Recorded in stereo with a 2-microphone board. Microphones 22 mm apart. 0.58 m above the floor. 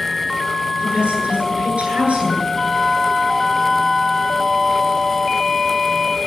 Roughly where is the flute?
Centre.